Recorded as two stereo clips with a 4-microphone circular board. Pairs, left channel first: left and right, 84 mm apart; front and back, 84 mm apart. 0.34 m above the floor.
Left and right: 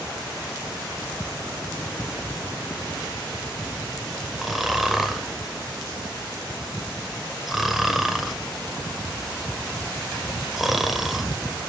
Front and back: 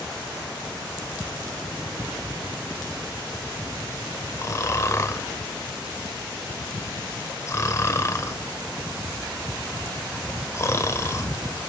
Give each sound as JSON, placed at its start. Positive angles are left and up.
{"t": 4.4, "sound": "snoring", "azimuth_deg": -5, "distance_m": 0.9}